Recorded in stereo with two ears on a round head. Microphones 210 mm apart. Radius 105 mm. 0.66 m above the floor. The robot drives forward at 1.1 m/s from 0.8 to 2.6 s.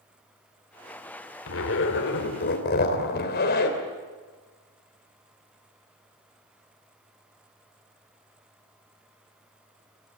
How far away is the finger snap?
I don't hear a finger snap.